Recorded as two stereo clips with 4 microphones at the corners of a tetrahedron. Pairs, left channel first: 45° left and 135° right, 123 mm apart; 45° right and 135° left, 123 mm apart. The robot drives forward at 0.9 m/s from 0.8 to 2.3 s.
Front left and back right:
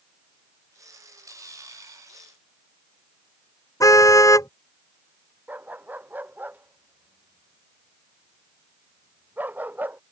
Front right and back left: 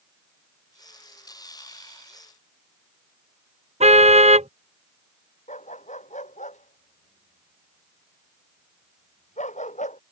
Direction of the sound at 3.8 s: 110° left.